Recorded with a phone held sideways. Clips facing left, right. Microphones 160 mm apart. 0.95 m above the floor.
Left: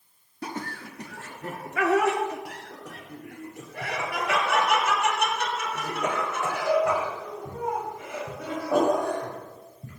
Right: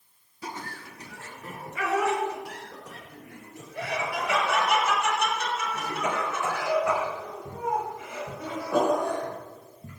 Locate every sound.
0.4 s laughter: 60° left (ahead or behind), 2 m; by 9.9 s 55° left (ahead or behind), 7.5 m